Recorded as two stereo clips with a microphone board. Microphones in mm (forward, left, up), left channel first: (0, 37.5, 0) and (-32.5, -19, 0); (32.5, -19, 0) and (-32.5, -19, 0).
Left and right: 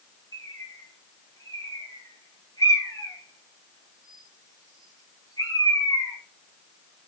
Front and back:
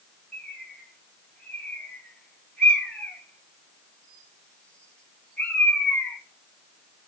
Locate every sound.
0.3 s a bird: 75° left, 7 m